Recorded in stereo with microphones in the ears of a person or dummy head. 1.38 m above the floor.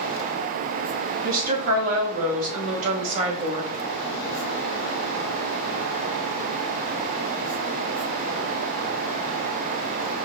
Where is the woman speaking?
55° right (ahead or behind), 2.5 m; by 3.7 s 35° right (ahead or behind), 1.1 m.